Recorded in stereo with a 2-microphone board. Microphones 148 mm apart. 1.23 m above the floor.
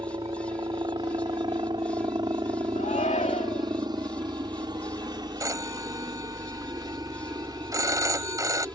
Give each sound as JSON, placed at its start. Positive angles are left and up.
{"t": 0.0, "sound": "a helicopter", "side_deg": -30}
{"t": 2.8, "sound": "a shout", "side_deg": 55}
{"t": 5.4, "sound": "a phone ringing", "side_deg": -20}